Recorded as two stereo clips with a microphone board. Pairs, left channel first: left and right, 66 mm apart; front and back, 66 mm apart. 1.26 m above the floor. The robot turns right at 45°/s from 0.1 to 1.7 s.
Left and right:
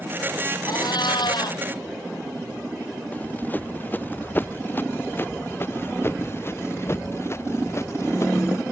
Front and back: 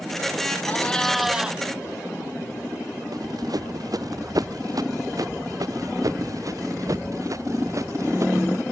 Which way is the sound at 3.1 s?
155° left.